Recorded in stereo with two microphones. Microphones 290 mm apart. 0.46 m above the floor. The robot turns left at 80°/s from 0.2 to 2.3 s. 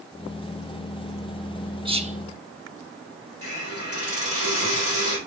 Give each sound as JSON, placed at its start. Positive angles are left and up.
{"t": 1.9, "sound": "whispering", "side_deg": -15, "distance_m": 0.9}
{"t": 3.4, "sound": "a hiss", "side_deg": -50, "distance_m": 3.5}